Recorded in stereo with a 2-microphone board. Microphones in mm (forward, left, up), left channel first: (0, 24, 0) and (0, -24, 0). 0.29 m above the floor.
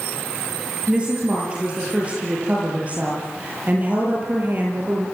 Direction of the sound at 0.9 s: 20° right (ahead or behind).